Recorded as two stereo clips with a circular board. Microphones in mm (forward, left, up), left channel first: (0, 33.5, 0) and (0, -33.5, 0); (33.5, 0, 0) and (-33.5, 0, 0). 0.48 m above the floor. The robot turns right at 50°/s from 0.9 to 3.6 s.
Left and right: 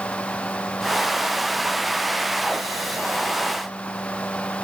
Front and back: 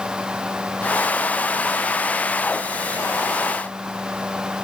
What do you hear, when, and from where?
Only background noise.